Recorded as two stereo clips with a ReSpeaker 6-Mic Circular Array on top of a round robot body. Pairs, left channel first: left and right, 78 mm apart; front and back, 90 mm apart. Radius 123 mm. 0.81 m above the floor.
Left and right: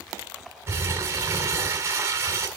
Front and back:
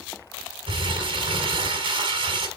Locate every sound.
0.7 s crumpling: 145° right, 2.5 m